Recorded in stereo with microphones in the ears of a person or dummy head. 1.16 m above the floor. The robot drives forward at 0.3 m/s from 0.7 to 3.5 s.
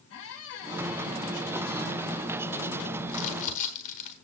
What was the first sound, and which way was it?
A squeak, 70° left (ahead or behind).